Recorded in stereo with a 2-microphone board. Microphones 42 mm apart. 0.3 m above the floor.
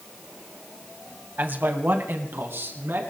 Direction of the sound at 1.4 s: 45° right (ahead or behind).